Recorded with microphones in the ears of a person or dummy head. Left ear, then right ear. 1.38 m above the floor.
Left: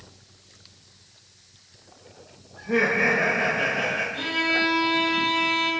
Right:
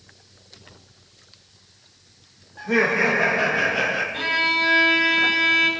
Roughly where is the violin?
Right.